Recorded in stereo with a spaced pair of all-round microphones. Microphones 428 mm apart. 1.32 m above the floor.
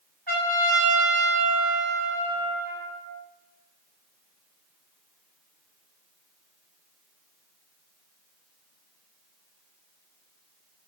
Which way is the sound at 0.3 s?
60° right (ahead or behind).